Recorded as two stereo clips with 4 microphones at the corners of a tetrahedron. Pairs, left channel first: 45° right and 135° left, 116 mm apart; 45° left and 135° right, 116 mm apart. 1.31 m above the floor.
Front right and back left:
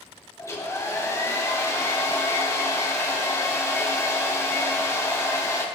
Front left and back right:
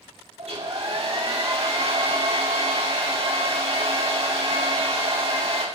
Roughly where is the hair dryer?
Right.